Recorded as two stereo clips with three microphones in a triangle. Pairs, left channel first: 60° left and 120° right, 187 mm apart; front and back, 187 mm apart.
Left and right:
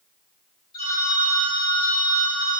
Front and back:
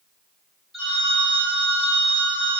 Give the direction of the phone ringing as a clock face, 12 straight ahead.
9 o'clock.